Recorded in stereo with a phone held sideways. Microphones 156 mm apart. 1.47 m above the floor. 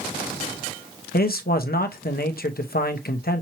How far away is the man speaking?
About 0.8 m.